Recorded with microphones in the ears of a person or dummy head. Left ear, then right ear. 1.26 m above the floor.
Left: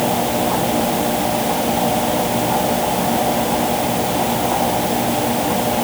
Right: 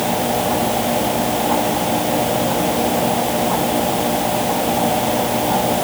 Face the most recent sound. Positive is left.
No sound to turn to.